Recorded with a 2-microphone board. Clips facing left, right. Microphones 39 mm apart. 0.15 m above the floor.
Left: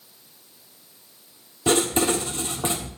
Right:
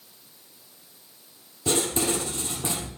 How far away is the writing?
About 2 m.